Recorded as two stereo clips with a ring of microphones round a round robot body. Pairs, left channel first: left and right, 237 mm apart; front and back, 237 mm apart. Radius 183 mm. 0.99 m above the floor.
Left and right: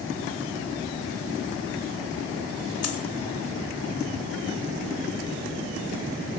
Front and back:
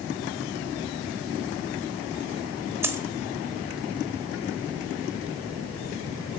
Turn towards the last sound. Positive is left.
turn(degrees=100)